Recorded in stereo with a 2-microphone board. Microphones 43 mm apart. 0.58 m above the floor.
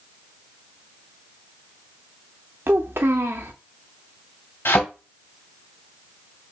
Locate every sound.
2.7 s a child speaking: 60° right (ahead or behind), 0.6 m
4.7 s a thud: 60° left (ahead or behind), 2 m